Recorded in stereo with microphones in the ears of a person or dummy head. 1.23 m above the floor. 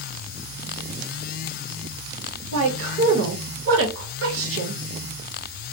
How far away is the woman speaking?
About 1.0 m.